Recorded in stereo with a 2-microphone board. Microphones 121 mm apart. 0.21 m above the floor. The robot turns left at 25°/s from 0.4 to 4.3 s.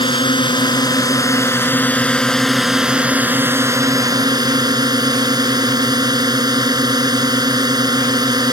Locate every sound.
0.0 s a drone: 55° left; by 8.5 s 45° right